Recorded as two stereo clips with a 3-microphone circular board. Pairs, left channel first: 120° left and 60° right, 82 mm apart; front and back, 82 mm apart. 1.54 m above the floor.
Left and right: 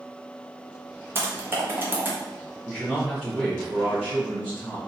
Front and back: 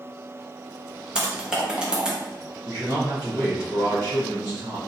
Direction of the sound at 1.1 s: 105° right.